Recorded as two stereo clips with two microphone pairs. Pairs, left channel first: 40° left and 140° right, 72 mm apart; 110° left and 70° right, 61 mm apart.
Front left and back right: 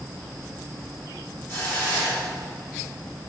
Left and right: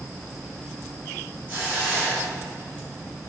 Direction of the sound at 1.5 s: 20° right.